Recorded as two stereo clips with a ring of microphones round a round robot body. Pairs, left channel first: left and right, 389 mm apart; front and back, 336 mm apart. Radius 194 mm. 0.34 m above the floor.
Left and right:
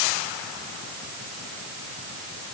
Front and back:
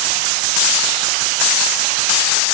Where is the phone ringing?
No phone ringing in this recording.